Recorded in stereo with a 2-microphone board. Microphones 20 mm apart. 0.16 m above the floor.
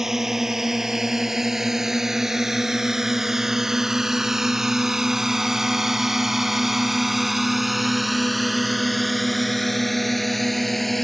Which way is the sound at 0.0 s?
15° right (ahead or behind).